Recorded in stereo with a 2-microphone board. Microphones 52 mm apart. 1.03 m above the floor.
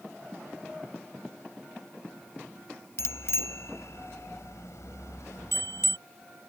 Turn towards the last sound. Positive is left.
turn(degrees=80)